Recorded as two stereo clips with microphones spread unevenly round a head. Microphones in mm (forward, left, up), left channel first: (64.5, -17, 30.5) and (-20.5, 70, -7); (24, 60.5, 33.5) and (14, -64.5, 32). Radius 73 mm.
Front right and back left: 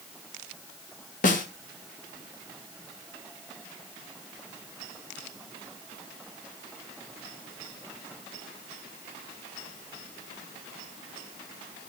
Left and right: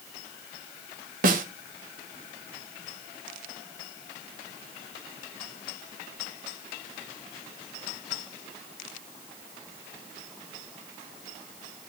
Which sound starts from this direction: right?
A snare drum, at 1.2 s.